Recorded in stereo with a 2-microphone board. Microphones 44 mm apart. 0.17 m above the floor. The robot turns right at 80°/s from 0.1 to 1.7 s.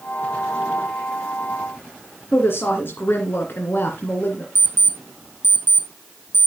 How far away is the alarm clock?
About 3 m.